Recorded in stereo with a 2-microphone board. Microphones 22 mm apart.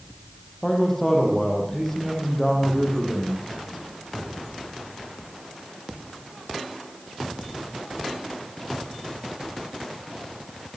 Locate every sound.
0.6 s a man speaking: 15° left (ahead or behind), 6 m